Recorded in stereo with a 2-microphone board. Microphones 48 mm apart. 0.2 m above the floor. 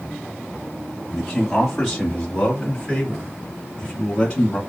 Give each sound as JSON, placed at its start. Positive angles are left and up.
{"t": 1.1, "sound": "a man speaking", "side_deg": 5, "distance_m": 1.6}